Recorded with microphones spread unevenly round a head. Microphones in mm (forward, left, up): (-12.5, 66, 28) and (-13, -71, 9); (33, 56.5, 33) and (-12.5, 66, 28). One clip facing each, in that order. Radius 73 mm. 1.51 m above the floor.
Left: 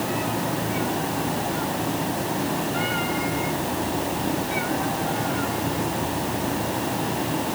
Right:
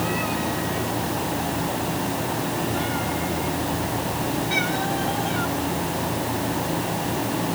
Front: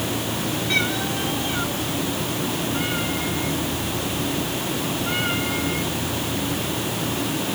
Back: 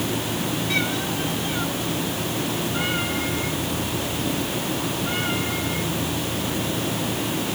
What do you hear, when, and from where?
Only background noise.